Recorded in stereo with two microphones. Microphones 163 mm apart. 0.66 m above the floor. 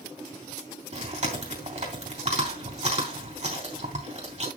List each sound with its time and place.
0.9 s chewing: 50° right (ahead or behind), 3.5 m